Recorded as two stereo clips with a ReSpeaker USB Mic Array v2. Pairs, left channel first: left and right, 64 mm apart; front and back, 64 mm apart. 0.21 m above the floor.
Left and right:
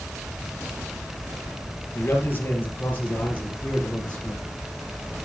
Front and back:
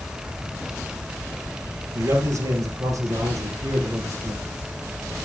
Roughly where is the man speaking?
Behind left.